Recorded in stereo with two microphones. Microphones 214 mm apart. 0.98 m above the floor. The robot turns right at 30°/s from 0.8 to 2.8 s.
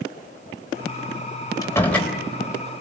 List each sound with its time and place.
1.6 s a door slam: 15° left (ahead or behind), 3 m; by 2.1 s centre (ahead or behind), 3 m